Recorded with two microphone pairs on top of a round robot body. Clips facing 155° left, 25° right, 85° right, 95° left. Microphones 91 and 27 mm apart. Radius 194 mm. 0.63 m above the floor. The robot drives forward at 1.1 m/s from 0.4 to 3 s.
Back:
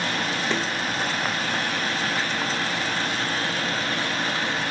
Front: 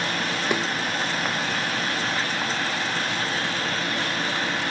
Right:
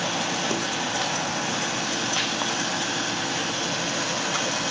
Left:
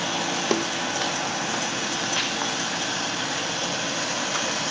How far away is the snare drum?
About 1.8 m.